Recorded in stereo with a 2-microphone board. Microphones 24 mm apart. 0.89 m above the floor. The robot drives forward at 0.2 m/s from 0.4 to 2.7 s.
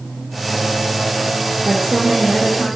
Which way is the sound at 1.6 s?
40° right (ahead or behind).